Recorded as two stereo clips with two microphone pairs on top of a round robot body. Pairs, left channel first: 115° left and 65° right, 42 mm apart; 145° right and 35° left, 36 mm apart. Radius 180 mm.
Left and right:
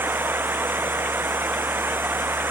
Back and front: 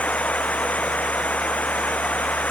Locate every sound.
0.0 s running water: 100° right